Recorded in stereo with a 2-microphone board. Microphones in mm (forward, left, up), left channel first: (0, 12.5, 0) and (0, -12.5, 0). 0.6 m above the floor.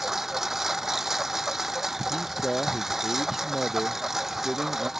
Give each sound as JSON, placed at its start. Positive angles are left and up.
{"t": 0.0, "sound": "a lawn mower", "side_deg": -15}
{"t": 2.1, "sound": "a man speaking", "side_deg": 5}